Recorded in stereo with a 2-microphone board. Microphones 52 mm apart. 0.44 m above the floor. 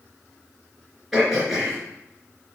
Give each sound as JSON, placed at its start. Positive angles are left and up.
{"t": 1.1, "sound": "throat clearing", "side_deg": -5, "distance_m": 3.5}